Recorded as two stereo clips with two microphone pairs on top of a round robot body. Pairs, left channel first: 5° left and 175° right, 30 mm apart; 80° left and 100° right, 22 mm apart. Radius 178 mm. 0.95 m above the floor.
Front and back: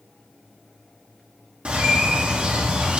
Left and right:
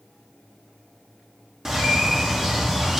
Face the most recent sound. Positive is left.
turn(degrees=-160)